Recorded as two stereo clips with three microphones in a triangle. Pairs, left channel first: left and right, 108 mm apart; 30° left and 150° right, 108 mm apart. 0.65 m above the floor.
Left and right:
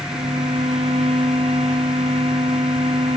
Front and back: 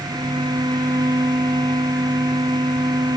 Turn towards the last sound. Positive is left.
turn(degrees=-100)